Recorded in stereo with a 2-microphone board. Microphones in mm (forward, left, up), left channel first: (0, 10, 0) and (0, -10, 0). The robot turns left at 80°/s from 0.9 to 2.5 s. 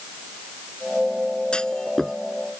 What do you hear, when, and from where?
1.5 s a clunk: 50° left (ahead or behind); by 2.2 s centre (ahead or behind)